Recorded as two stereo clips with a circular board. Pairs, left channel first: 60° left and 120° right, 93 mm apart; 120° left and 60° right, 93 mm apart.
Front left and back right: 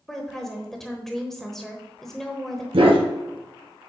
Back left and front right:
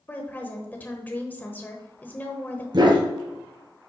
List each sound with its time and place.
0.1 s a woman speaking: 140° left, 1.0 m
2.7 s a dog barking: 100° right, 1.8 m